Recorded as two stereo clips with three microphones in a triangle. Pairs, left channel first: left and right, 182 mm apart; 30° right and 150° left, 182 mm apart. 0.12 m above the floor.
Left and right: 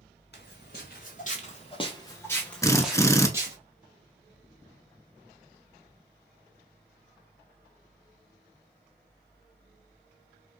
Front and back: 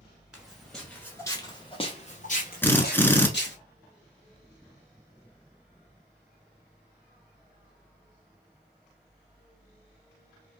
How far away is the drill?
About 0.7 m.